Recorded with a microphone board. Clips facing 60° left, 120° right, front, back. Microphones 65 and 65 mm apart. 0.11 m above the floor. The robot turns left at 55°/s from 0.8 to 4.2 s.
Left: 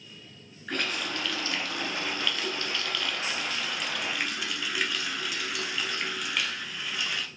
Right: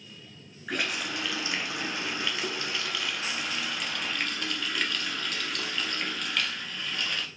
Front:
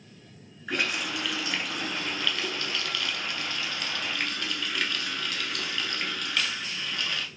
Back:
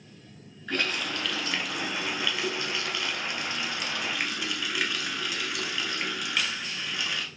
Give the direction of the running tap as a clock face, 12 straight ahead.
2 o'clock.